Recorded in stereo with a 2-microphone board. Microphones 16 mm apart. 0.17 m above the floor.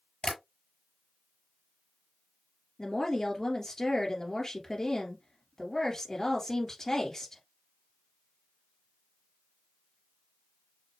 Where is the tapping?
45° left (ahead or behind), 4.5 m.